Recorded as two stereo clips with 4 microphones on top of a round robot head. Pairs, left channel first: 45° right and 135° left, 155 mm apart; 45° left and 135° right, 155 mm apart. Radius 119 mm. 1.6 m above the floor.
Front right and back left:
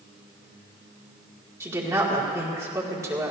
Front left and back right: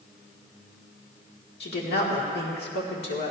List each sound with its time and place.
1.6 s a woman speaking: 60° left, 2 m